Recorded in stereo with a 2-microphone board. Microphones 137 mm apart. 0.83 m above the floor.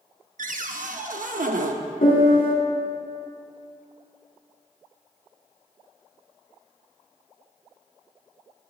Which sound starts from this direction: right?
A cupboard door, at 0.4 s.